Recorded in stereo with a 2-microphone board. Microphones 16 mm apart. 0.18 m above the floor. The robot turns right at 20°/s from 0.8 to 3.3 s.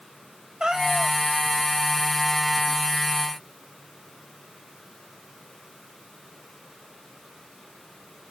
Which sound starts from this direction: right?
A cat meowing, at 0.6 s.